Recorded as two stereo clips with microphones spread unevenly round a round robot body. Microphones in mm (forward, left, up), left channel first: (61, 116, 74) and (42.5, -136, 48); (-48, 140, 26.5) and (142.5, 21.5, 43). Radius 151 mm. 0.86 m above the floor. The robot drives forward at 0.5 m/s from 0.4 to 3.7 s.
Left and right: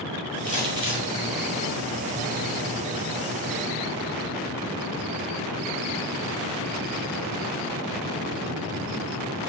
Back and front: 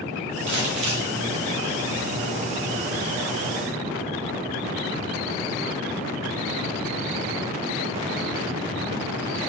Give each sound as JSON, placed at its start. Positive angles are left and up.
{"t": 0.5, "sound": "crumpling", "azimuth_deg": -20, "distance_m": 2.0}